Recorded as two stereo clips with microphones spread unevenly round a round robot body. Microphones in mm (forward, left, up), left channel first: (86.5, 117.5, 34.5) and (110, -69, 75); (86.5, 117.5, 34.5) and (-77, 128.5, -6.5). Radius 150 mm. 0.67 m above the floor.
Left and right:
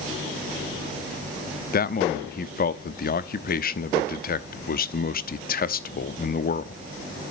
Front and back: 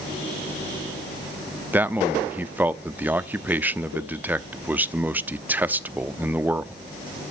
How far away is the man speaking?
About 0.9 m.